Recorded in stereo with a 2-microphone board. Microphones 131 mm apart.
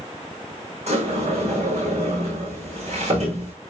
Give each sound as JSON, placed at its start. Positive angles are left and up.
{"t": 0.9, "sound": "a sliding door", "side_deg": -55, "distance_m": 5.0}